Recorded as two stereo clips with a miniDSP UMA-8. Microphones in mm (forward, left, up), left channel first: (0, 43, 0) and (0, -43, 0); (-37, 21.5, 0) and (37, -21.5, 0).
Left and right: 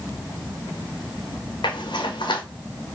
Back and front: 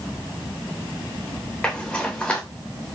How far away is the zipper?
About 3 m.